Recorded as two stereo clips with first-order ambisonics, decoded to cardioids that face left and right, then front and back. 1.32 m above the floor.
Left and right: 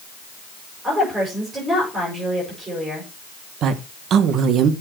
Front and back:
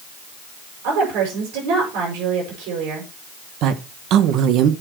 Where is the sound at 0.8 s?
170° right, 6.5 m.